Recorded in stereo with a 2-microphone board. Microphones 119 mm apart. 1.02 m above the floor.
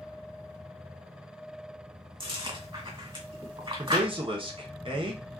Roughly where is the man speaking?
Right.